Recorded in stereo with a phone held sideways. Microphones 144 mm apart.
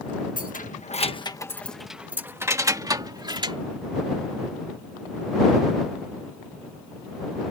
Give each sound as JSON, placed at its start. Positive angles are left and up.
{"t": 0.4, "sound": "keys jangling", "side_deg": 75}